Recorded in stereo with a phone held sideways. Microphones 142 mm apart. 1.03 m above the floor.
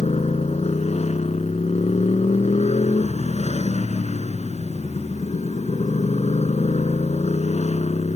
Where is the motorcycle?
50° left (ahead or behind).